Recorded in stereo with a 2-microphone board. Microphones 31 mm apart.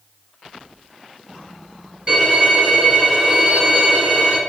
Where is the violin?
30° right (ahead or behind), 1.4 m.